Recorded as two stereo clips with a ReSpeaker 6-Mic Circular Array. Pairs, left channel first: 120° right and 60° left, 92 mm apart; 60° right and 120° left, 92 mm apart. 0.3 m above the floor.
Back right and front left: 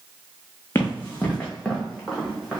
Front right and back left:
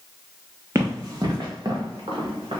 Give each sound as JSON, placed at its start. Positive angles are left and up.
{"t": 0.8, "sound": "running footsteps", "azimuth_deg": 180, "distance_m": 1.2}